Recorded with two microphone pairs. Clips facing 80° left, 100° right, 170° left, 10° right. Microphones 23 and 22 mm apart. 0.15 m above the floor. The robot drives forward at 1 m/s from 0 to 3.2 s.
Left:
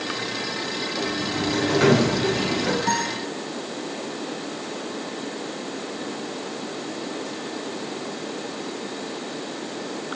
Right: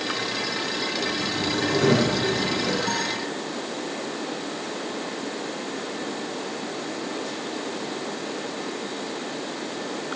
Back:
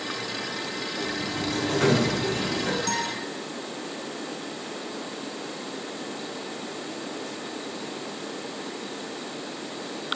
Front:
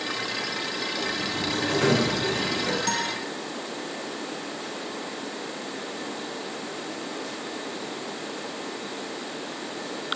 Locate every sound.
1.0 s a sliding door: 90° left, 8 m; by 2.8 s 100° left, 8 m
2.9 s a guitar: 75° left, 7.5 m